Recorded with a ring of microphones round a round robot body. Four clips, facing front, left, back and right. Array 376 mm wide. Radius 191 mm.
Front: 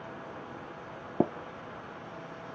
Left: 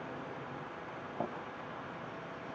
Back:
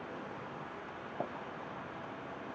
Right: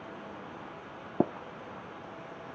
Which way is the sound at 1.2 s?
45° right.